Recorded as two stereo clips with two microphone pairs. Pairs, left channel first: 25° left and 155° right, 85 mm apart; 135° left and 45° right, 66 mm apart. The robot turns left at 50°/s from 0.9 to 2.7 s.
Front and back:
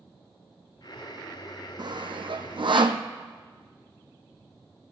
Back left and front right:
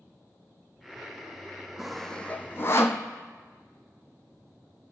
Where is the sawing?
130° right, 0.9 m; by 3.0 s 175° right, 0.9 m.